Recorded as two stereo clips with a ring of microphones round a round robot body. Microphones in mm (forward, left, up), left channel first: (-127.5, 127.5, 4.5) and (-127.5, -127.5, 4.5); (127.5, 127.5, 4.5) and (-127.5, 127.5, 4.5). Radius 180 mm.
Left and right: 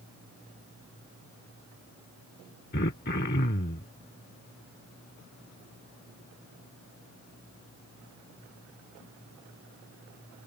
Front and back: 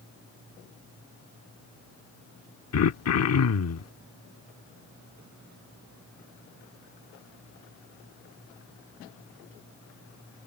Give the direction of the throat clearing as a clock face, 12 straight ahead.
11 o'clock.